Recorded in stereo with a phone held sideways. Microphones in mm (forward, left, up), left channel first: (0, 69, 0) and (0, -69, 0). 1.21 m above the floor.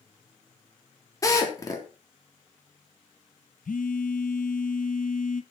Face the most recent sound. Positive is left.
turn(degrees=75)  # may be behind; listen again after turning